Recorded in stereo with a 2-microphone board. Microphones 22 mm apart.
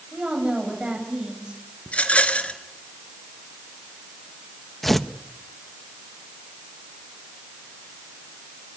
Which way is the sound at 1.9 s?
65° left (ahead or behind).